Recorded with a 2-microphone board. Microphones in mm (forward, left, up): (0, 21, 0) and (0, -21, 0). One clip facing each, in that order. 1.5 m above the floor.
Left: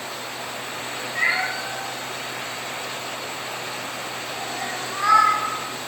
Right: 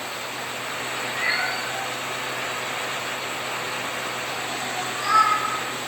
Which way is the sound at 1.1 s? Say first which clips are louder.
Left 3 dB; 45° left (ahead or behind).